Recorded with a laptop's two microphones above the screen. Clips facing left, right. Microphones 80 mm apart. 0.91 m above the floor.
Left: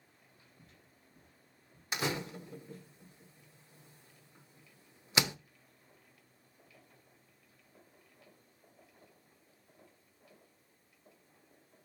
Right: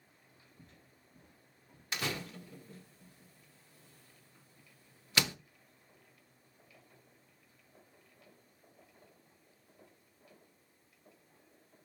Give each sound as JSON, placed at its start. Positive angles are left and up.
{"t": 0.6, "sound": "footsteps", "side_deg": -55, "distance_m": 2.0}
{"t": 1.9, "sound": "a door slam", "side_deg": 20, "distance_m": 0.6}